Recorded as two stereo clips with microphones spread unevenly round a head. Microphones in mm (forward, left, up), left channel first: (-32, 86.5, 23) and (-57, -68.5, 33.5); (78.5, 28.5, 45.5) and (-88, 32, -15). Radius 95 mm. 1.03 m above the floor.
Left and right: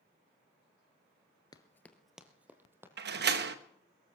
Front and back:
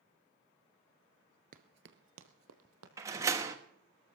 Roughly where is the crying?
I don't hear crying.